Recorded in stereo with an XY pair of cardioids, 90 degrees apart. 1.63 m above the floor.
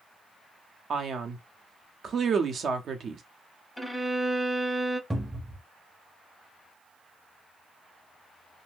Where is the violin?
Straight ahead, 0.7 m.